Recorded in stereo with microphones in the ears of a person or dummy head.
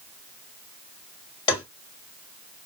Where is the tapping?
30° left (ahead or behind), 1.5 m.